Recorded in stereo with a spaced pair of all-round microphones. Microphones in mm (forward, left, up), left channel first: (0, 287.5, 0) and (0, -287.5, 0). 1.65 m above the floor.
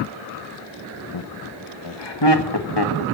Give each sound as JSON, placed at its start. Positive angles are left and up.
{"t": 1.1, "sound": "laughter", "side_deg": 50, "distance_m": 1.0}